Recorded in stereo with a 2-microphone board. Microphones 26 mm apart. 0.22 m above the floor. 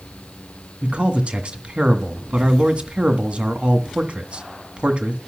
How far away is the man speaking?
About 1.8 m.